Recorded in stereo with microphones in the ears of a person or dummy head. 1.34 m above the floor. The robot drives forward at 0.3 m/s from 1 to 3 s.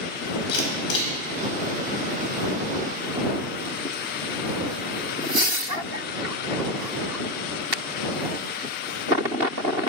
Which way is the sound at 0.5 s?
60° left (ahead or behind).